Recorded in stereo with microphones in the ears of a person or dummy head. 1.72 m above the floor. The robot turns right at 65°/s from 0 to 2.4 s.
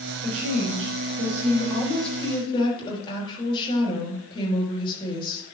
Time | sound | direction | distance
0.2 | a woman speaking | 115° right | 4 m